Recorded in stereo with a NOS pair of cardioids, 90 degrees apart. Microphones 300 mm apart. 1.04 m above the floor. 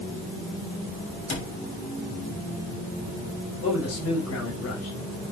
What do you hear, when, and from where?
1.3 s a cupboard door: 40° left, 7 m
3.6 s a man speaking: 55° left, 5 m